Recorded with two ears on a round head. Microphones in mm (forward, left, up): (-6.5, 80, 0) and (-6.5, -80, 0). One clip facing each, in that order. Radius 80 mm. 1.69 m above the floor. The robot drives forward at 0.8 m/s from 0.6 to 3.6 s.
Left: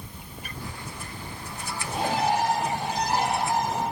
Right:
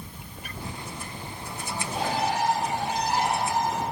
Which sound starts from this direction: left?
A bird, at 1.8 s.